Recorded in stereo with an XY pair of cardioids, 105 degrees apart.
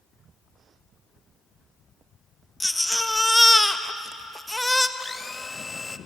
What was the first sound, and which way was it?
A baby crying, 5° left.